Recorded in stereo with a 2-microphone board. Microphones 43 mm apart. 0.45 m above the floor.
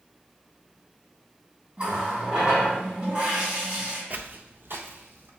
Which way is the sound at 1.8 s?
30° right (ahead or behind).